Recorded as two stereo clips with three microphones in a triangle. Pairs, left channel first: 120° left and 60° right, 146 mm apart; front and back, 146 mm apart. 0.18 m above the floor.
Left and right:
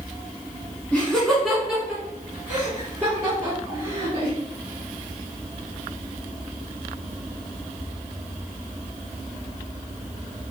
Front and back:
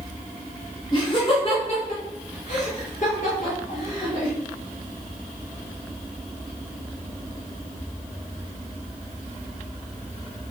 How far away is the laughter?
About 1.4 m.